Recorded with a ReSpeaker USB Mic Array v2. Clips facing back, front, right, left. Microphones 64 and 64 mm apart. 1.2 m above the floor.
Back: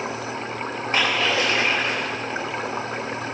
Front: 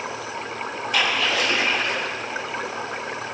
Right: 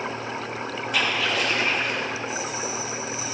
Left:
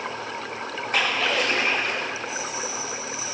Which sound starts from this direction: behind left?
A splash, at 0.9 s.